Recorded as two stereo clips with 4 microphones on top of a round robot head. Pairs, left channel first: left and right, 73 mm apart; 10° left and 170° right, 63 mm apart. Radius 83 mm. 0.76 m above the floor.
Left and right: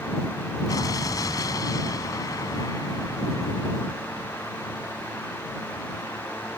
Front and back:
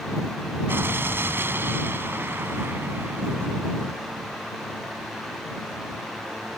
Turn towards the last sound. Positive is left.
turn(degrees=135)